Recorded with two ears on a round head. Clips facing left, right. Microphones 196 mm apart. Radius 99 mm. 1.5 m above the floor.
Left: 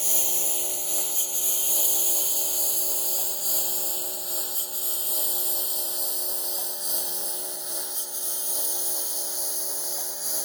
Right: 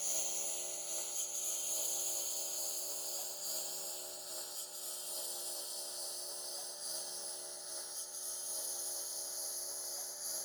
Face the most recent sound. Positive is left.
turn(degrees=80)